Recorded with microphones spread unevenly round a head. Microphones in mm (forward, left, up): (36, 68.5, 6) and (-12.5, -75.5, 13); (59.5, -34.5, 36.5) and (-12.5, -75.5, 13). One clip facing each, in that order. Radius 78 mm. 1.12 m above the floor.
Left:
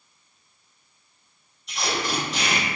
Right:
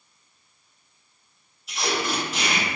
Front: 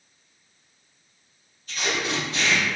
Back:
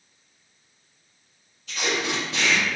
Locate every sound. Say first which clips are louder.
1.7 s tape being pulled: right 1 dB, back 1 dB; 165° left, 0.6 m